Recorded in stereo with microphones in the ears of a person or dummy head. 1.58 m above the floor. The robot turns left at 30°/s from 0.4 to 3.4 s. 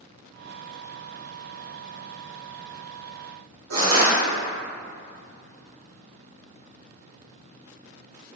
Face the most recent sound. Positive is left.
turn(degrees=-75)  # may be behind; listen again after turning